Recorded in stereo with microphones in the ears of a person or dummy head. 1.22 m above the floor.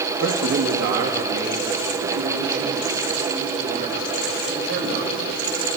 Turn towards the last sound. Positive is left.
turn(degrees=-55)  # may be behind; listen again after turning